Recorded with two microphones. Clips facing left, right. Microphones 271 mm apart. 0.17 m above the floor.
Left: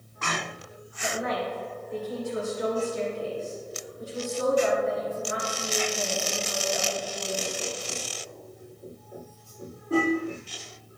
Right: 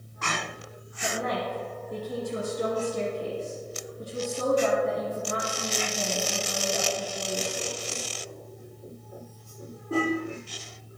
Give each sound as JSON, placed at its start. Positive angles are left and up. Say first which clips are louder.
{"t": 1.0, "sound": "a woman speaking", "louder": "even", "side_deg": -40, "distance_m": 2.0}